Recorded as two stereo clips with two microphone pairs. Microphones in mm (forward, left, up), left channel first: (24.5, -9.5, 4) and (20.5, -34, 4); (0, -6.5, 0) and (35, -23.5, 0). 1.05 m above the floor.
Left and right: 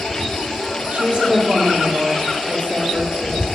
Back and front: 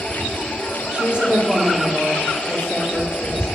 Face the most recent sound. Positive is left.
turn(degrees=-100)